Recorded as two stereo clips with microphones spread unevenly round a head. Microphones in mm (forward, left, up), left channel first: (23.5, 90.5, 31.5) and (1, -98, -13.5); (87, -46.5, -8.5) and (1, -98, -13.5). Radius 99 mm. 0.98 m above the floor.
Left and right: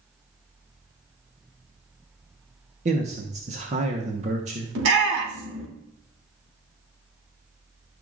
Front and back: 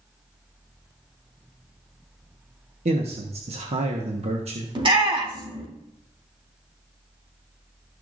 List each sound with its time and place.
2.9 s a man speaking: 150° right, 1.2 m
4.8 s a shout: 120° right, 3 m